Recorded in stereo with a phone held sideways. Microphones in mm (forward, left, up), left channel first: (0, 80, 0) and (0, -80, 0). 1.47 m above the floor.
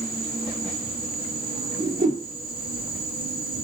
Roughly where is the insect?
Right.